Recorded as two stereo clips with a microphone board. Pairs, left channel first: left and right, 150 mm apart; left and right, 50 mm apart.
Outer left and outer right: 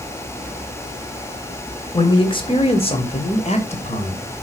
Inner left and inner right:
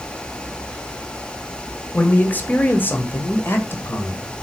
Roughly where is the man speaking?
Left.